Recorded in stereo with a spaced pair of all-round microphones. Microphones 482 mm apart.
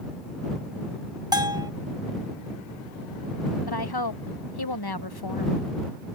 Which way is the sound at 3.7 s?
55° left (ahead or behind).